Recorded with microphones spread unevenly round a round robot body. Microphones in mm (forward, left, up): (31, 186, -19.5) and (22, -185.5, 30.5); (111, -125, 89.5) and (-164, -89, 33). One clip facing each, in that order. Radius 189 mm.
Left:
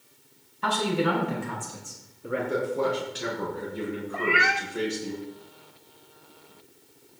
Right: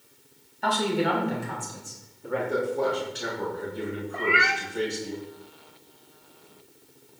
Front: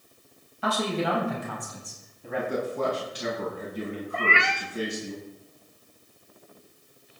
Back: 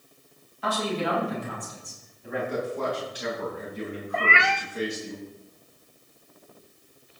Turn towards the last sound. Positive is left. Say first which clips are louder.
# even, back 3 dB
turn(degrees=-175)